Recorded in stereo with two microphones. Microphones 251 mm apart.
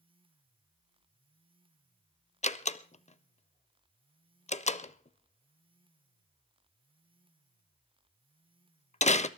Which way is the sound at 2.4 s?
25° left (ahead or behind).